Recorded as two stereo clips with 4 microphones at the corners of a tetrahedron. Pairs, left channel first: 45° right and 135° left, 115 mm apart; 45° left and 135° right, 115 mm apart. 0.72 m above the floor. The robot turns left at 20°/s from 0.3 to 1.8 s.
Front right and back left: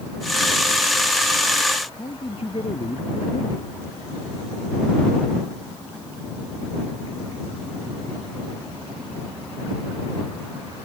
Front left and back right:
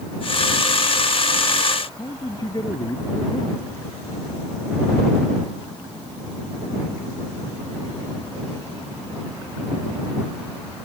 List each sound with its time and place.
2.0 s a man speaking: 10° right